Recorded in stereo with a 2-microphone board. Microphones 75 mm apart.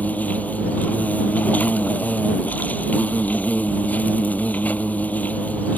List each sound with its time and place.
0.0 s an insect: 20° left (ahead or behind)